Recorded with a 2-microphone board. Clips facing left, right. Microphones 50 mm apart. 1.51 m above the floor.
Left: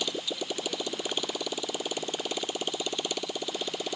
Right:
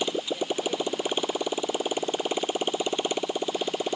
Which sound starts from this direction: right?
A motorcycle, at 0.0 s.